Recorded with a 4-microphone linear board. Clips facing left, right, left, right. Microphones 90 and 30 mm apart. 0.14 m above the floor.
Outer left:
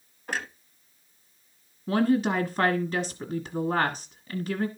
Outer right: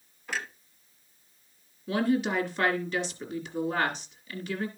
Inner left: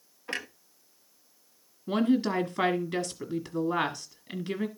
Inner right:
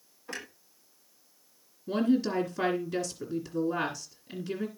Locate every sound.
0.3 s a clunk: 50° left (ahead or behind), 1.0 m
1.9 s a woman speaking: 40° left (ahead or behind), 1.7 m